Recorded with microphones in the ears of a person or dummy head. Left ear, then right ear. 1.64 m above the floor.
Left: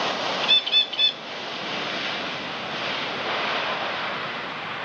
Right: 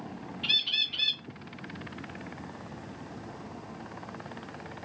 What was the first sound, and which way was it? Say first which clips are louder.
A bird: left 6 dB; 35° left (ahead or behind).